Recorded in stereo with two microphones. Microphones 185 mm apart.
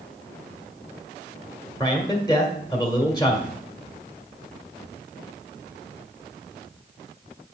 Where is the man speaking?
20° left (ahead or behind), 1.5 m.